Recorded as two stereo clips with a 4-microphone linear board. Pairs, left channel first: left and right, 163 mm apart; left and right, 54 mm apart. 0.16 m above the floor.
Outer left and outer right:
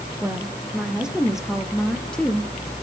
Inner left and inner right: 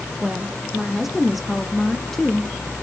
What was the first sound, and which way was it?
A woman speaking, 10° right (ahead or behind).